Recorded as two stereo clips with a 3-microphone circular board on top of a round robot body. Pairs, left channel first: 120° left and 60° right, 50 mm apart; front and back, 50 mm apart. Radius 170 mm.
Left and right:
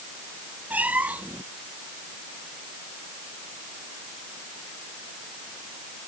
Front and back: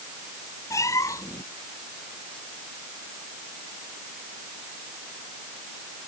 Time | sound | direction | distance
0.7 | a cat meowing | straight ahead | ?